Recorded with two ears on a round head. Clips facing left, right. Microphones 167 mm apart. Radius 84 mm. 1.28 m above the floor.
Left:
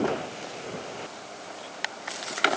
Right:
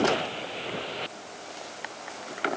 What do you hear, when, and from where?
Only background noise.